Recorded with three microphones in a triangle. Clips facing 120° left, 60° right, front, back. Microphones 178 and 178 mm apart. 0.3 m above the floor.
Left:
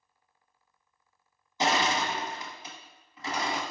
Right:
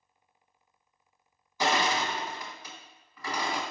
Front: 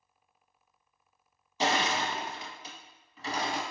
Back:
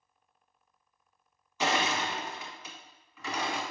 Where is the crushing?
55° left, 0.8 m.